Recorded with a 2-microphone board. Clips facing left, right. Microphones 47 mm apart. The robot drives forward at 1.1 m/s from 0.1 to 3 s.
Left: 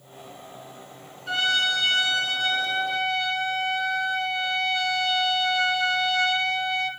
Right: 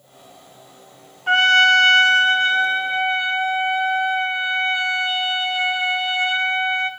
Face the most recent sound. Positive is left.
turn(degrees=-30)  # may be behind; listen again after turning